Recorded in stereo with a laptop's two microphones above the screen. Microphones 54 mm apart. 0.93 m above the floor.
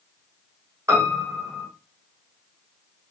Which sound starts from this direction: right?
A piano, at 0.9 s.